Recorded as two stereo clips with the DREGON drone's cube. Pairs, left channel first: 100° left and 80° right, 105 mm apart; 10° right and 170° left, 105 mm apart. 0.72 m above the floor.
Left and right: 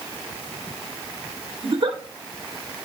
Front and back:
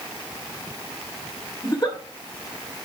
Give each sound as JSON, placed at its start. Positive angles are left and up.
{"t": 1.6, "sound": "a giggle", "azimuth_deg": -60, "distance_m": 1.5}